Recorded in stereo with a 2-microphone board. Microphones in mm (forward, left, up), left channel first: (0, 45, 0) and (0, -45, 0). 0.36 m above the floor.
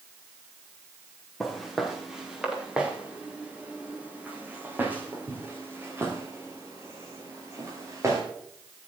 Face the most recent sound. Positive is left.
turn(degrees=-35)  # may be behind; listen again after turning